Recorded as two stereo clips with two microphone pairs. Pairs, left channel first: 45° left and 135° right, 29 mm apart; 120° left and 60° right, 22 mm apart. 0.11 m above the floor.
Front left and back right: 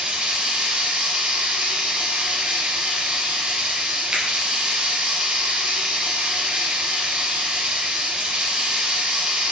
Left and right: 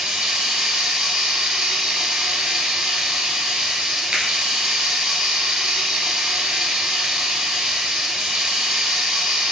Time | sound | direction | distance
0.0 | running water | 110° right | 1.1 m
4.1 | a finger snap | 95° right | 1.5 m